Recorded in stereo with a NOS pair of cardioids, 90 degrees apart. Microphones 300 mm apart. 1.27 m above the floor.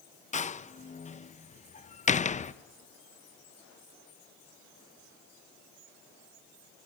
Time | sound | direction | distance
0.3 | a door slam | 25° left | 0.8 m